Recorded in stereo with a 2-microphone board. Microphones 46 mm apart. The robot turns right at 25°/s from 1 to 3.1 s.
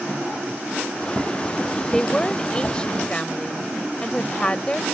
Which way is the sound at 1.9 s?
15° left (ahead or behind).